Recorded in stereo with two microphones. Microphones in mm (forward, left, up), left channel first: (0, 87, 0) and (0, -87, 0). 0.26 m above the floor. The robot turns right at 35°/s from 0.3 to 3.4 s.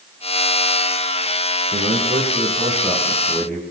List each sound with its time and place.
1.7 s a man speaking: 55° right, 8 m; by 3.6 s 5° left, 8 m